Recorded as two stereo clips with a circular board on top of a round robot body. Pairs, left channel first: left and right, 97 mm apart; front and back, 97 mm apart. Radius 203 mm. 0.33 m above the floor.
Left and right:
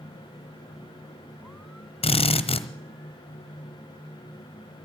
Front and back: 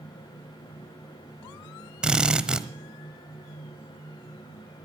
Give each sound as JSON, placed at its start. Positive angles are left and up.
{"t": 2.0, "sound": "a drill", "azimuth_deg": 100, "distance_m": 1.0}